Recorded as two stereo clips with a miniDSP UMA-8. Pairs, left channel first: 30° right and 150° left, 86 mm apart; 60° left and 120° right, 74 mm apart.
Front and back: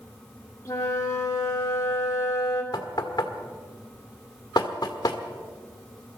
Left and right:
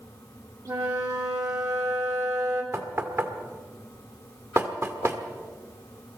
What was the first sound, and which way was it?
A flute, 85° right.